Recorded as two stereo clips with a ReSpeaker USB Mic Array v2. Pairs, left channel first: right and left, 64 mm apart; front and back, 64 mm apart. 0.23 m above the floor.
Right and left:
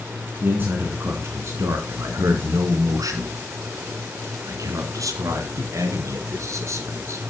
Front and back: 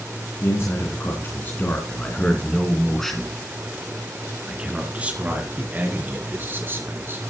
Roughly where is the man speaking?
Ahead left.